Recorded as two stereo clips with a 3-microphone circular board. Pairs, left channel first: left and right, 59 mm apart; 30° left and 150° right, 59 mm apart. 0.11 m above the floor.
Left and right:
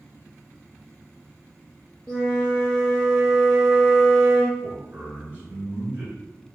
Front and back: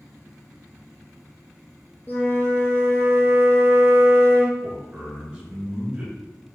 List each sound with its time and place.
2.1 s a flute: 25° left, 0.7 m
4.6 s a man speaking: 100° right, 1.3 m